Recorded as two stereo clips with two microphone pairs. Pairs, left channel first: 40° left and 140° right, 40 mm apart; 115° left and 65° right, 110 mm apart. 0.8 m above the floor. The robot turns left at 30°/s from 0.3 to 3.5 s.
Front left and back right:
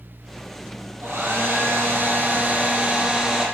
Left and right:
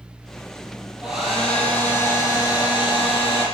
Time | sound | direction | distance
1.0 | a hair dryer | 145° right | 6 m